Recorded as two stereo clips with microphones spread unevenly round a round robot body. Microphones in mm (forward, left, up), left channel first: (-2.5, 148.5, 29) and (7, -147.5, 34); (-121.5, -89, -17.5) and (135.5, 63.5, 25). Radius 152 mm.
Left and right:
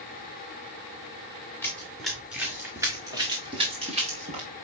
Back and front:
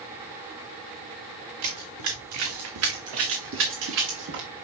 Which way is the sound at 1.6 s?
10° left.